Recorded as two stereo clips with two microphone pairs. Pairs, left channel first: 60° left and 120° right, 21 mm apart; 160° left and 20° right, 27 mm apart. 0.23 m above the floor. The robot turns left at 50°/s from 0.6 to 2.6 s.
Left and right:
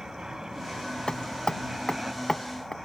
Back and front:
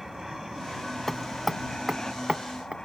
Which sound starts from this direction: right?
An aircraft, at 0.0 s.